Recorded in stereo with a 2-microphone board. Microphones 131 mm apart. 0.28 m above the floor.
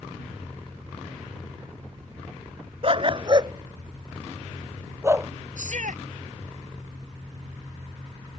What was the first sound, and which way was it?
A dog barking, 50° right (ahead or behind).